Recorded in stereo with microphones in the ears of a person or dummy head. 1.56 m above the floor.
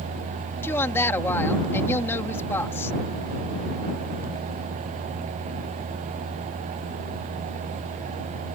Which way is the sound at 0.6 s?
15° left (ahead or behind).